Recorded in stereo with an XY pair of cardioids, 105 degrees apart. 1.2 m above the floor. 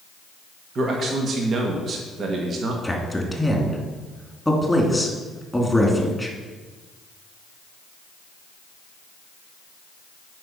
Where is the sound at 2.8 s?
5° left, 2.5 m.